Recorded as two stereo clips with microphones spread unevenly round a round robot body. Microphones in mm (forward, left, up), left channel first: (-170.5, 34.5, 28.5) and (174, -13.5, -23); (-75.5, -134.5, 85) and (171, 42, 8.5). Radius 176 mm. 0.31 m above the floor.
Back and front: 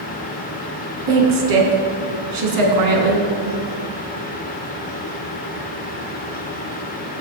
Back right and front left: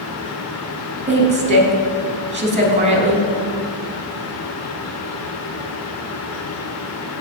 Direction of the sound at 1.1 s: 25° right.